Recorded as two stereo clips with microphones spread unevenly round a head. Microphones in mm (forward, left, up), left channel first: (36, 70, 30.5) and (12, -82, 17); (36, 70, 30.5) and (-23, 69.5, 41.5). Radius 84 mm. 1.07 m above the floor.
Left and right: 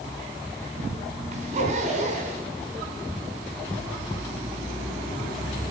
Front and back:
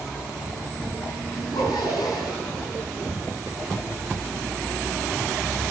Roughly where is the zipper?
Ahead right.